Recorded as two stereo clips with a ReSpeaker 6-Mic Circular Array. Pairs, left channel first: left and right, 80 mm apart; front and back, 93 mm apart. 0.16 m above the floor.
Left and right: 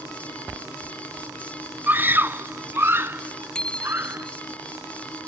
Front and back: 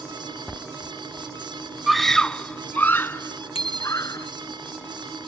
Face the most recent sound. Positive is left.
turn(degrees=10)